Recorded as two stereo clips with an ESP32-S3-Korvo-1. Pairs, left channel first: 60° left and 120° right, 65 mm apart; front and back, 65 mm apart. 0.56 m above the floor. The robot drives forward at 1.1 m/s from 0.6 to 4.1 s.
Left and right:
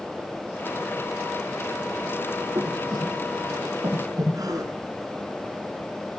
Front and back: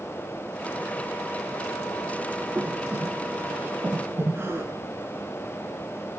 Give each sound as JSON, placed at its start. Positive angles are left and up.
{"t": 2.5, "sound": "breathing", "azimuth_deg": -115, "distance_m": 9.5}
{"t": 4.3, "sound": "a gasp", "azimuth_deg": -130, "distance_m": 6.0}